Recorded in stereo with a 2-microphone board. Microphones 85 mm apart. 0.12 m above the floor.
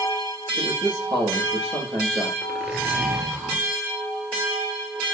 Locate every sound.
0.6 s a man speaking: 75° right (ahead or behind), 4.5 m
2.4 s a zipper: 10° right (ahead or behind), 2 m